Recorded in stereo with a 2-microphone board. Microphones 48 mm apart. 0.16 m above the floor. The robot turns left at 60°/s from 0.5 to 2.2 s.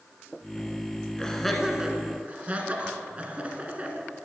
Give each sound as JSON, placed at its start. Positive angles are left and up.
{"t": 1.2, "sound": "laughter", "side_deg": 15, "distance_m": 1.5}